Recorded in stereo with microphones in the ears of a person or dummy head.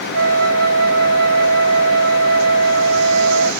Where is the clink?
No clink in this recording.